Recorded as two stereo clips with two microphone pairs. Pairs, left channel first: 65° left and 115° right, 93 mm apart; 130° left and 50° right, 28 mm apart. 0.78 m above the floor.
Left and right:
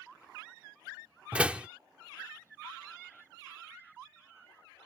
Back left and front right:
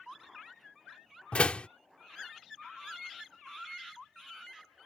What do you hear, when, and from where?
1.3 s a door slam: 170° left